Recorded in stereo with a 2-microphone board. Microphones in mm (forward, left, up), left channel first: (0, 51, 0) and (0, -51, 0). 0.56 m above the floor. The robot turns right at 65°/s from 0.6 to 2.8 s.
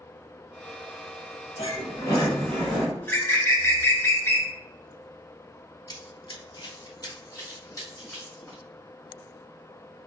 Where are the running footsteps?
40° left (ahead or behind), 0.7 m; by 8.6 s 30° left (ahead or behind), 2 m.